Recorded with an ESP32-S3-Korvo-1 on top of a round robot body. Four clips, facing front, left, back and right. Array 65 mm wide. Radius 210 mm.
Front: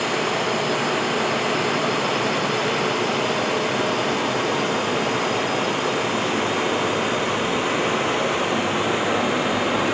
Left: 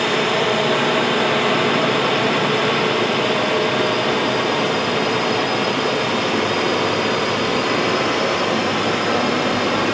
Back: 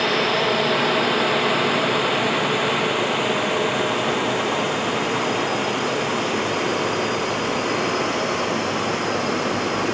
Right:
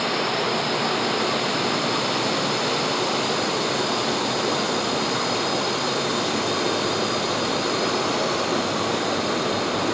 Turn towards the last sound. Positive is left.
turn(degrees=75)